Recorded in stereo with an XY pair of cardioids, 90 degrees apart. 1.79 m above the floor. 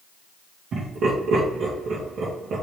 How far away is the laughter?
About 3 m.